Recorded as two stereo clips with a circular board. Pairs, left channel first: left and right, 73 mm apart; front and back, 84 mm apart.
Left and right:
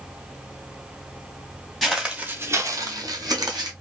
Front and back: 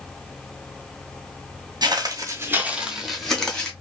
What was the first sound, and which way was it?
Footsteps, straight behind.